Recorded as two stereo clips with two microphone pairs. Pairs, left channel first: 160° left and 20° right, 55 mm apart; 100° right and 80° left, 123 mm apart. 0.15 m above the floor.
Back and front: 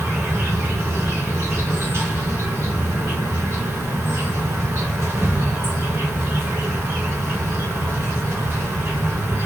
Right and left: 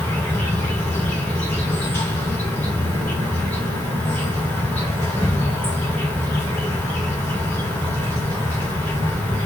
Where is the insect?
25° right, 1.3 m.